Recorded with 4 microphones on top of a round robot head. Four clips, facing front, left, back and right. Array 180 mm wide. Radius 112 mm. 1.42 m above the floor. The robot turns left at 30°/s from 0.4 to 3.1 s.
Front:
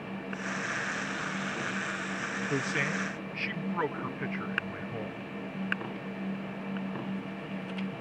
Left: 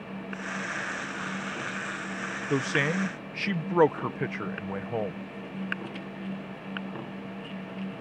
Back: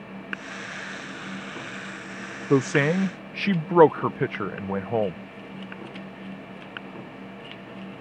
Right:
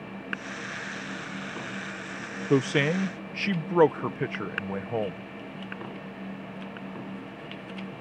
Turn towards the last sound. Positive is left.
turn(degrees=-170)